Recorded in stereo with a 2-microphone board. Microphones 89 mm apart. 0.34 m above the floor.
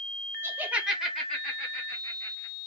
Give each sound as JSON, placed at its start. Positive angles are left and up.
{"t": 0.4, "sound": "laughter", "side_deg": -25, "distance_m": 1.1}